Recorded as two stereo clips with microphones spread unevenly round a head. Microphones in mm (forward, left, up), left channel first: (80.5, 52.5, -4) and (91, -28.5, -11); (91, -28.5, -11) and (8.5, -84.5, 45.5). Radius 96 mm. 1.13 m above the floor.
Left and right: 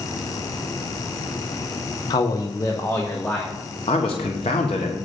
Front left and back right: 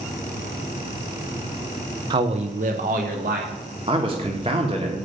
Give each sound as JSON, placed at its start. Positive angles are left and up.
{"t": 2.1, "sound": "a man speaking", "azimuth_deg": 140, "distance_m": 0.6}
{"t": 3.9, "sound": "a man speaking", "azimuth_deg": 150, "distance_m": 1.1}